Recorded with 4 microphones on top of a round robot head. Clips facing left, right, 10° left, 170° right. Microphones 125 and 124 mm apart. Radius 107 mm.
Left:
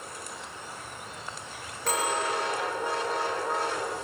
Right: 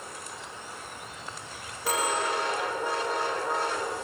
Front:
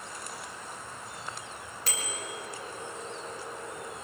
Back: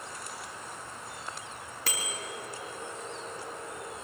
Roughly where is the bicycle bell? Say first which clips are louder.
Even, back 1 dB; behind.